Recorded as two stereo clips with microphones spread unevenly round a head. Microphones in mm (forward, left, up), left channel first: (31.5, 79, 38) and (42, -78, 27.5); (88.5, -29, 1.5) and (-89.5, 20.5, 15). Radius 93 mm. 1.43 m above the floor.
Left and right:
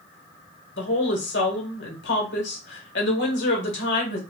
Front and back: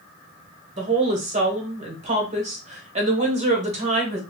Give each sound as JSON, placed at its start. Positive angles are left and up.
{"t": 0.8, "sound": "a woman speaking", "azimuth_deg": 105, "distance_m": 1.2}